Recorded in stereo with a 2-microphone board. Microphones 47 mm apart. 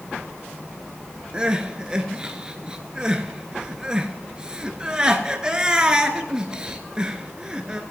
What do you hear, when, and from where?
1.3 s crying: 20° right (ahead or behind), 1.2 m